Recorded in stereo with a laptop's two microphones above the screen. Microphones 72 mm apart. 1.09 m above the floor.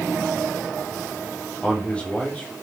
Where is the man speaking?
15° left (ahead or behind), 3.5 m.